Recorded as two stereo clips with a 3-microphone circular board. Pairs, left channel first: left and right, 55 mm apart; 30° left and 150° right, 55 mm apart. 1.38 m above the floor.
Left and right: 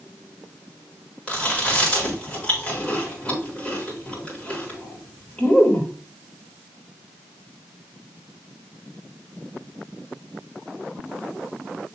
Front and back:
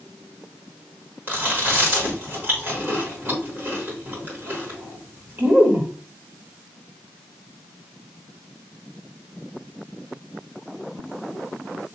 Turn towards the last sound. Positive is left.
turn(degrees=160)